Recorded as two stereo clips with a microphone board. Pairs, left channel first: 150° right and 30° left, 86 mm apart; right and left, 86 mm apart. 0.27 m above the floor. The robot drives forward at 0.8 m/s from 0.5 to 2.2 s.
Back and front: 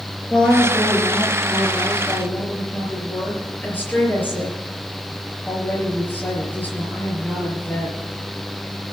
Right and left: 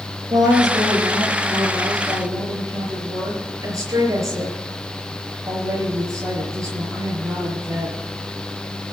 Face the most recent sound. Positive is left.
turn(degrees=140)